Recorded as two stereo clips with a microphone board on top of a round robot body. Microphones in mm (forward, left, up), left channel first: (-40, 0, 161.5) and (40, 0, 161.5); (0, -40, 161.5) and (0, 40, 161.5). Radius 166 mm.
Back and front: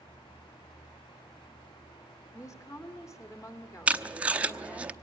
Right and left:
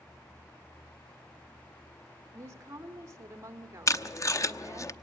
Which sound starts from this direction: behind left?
A woman speaking, at 2.3 s.